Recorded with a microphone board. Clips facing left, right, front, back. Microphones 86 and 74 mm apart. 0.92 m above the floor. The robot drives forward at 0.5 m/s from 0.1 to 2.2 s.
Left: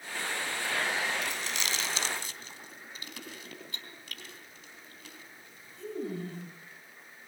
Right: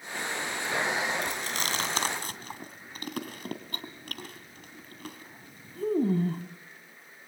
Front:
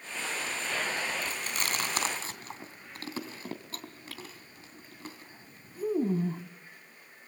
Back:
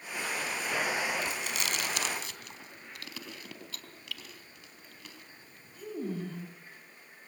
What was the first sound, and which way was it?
Chewing, 45° right.